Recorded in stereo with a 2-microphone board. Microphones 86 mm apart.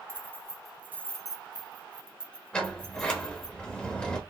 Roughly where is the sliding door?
Centre.